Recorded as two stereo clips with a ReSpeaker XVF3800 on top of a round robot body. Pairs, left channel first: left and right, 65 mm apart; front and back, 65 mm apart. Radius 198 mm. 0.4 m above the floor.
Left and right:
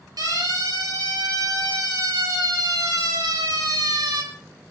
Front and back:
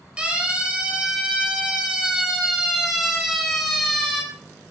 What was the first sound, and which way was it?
A siren, 105° right.